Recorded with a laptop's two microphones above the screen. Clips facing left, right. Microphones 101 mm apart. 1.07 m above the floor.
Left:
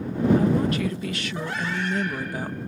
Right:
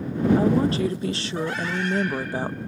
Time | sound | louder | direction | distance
0.4 | a woman speaking | right 2 dB | 30° right (ahead or behind) | ?